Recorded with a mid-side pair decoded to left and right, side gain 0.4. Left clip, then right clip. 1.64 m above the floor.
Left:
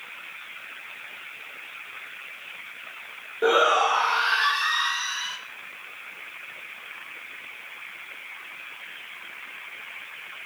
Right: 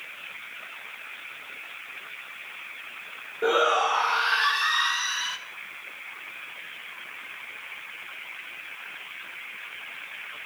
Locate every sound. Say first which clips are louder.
3.4 s a shout: left 2 dB; 25° left, 1.5 m; by 5.4 s 20° right, 1.6 m